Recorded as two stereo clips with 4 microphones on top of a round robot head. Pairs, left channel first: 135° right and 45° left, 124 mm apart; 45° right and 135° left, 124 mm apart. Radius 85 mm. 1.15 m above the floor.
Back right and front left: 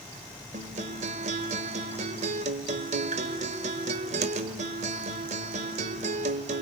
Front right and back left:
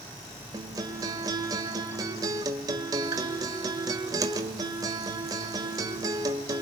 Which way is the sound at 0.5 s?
75° left.